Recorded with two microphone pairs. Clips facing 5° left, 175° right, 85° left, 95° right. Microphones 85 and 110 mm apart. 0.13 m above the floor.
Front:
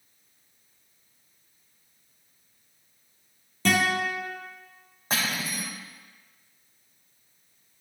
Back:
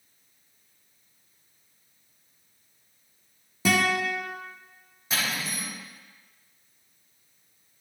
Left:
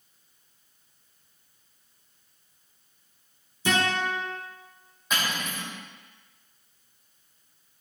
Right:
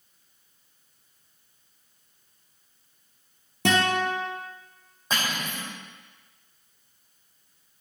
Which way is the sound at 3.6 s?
95° right.